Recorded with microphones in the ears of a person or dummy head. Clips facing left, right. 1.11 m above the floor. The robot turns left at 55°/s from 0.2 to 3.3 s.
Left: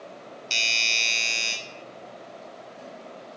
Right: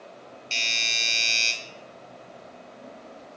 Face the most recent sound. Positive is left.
turn(degrees=-140)